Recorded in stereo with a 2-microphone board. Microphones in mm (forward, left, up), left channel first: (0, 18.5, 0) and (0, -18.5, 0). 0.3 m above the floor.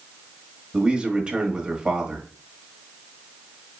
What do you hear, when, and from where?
0.7 s a man speaking: 25° right (ahead or behind), 1.4 m